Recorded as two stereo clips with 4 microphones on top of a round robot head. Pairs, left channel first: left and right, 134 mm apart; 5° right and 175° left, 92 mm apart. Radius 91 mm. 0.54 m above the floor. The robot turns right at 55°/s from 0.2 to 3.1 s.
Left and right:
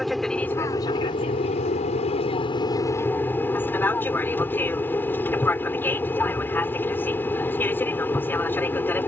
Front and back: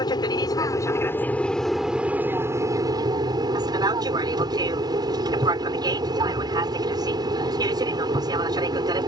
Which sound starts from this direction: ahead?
An aircraft, at 0.0 s.